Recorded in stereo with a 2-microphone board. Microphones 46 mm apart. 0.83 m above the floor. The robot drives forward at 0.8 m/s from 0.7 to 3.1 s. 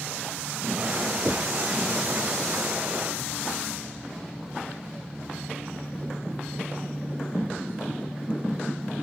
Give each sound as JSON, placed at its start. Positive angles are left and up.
{"t": 1.2, "sound": "knocking", "side_deg": -25}